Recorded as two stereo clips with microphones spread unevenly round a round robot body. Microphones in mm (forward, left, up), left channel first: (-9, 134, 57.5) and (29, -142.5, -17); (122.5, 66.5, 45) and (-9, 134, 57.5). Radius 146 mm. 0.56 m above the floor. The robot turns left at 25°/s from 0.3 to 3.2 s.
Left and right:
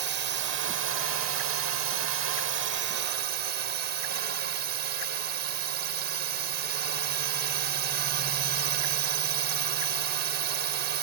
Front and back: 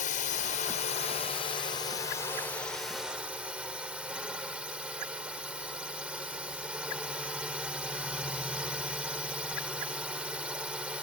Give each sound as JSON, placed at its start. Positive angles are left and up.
{"t": 0.0, "sound": "a drone", "azimuth_deg": -50}